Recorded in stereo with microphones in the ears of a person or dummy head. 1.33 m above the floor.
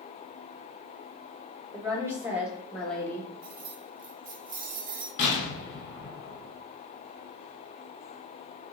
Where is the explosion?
55° left (ahead or behind), 1.7 m.